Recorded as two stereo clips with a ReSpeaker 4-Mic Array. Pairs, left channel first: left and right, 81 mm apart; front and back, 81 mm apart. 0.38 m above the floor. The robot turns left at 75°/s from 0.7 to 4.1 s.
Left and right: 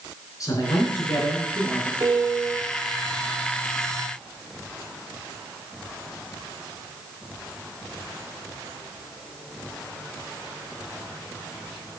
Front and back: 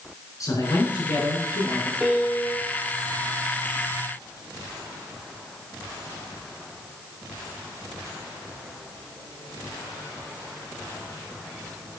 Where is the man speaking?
45° left, 4 m; by 1.9 s 45° right, 4 m.